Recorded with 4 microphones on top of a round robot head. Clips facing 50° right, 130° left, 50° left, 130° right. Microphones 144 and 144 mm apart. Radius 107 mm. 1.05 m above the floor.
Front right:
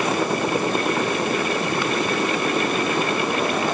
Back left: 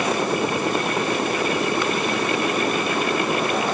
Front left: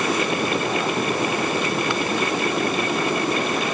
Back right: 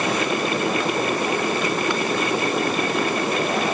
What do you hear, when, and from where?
Only background noise.